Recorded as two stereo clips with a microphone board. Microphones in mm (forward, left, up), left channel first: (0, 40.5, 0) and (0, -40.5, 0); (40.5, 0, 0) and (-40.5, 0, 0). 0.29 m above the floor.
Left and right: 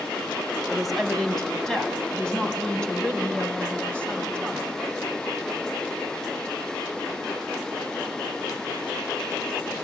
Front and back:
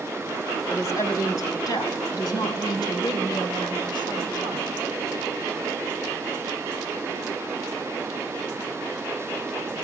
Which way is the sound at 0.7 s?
Straight ahead.